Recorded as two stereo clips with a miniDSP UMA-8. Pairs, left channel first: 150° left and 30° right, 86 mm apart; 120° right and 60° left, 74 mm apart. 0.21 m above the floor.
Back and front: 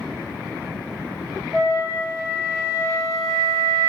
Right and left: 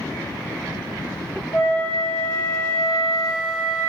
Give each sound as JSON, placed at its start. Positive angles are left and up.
{"t": 1.5, "sound": "a flute", "azimuth_deg": -115, "distance_m": 1.5}